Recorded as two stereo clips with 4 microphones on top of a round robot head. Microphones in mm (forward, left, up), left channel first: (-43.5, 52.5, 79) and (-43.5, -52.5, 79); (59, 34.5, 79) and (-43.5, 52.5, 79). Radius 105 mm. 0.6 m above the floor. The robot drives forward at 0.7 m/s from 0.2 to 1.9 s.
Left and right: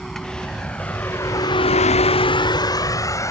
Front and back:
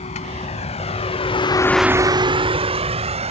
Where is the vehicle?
Straight ahead; by 3.3 s 150° left.